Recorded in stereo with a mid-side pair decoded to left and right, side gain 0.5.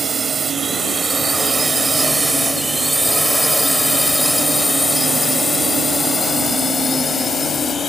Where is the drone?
30° right; by 7.9 s 40° left.